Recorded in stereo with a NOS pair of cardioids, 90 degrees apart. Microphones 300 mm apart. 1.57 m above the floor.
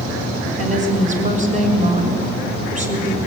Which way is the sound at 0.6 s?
25° right.